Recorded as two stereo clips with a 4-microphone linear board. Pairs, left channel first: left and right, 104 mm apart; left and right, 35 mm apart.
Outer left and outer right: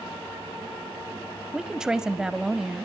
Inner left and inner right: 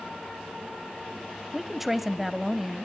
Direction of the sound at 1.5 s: 5° right (ahead or behind).